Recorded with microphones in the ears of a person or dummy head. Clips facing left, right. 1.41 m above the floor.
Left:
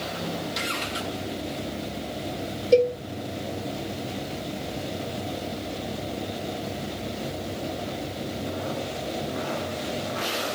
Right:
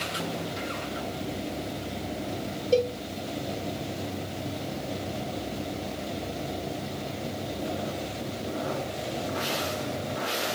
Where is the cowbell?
30° left (ahead or behind), 1.9 m.